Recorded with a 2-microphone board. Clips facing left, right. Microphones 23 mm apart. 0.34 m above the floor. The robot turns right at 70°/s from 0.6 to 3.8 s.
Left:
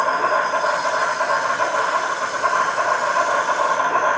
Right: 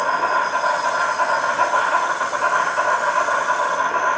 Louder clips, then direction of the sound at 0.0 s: Even; 175° right.